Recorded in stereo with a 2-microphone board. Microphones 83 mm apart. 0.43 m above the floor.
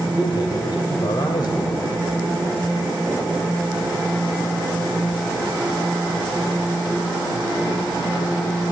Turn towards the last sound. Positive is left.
turn(degrees=55)  # may be behind; listen again after turning